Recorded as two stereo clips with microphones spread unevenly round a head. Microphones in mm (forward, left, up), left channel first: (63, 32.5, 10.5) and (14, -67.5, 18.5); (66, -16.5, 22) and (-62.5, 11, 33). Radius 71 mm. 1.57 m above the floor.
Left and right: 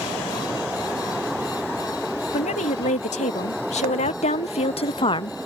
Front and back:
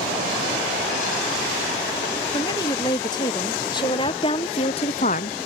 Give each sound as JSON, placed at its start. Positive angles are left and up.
{"t": 2.3, "sound": "a woman speaking", "azimuth_deg": 50}